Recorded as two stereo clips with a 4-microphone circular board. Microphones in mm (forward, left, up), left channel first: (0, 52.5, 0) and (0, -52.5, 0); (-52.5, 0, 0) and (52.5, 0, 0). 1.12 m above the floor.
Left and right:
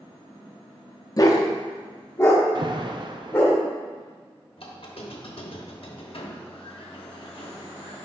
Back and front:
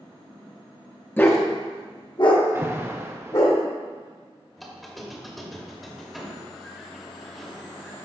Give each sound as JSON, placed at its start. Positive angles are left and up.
{"t": 1.2, "sound": "a dog barking", "azimuth_deg": 120, "distance_m": 0.6}
{"t": 2.5, "sound": "an alarm", "azimuth_deg": -60, "distance_m": 0.5}
{"t": 4.6, "sound": "a squeak", "azimuth_deg": 90, "distance_m": 0.9}